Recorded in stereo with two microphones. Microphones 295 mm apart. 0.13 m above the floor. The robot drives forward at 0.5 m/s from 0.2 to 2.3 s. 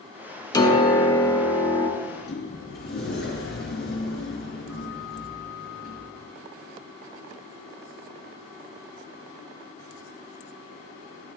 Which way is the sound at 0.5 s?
15° left (ahead or behind).